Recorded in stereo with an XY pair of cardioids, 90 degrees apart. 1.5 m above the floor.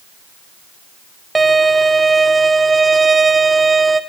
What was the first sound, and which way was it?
A violin, 25° right.